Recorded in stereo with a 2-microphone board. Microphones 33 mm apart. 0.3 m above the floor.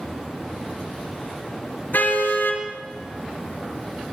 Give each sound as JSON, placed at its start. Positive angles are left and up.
{"t": 1.9, "sound": "a car horn", "side_deg": 75, "distance_m": 3.0}